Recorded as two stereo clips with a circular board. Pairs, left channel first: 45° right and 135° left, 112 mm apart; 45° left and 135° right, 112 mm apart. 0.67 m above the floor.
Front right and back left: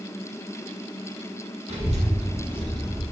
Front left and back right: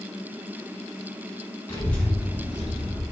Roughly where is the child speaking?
Left.